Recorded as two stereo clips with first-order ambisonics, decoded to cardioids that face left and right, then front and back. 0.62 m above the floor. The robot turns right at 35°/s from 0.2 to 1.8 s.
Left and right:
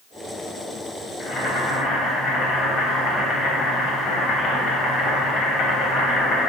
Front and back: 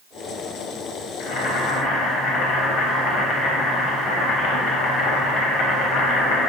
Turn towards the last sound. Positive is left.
turn(degrees=35)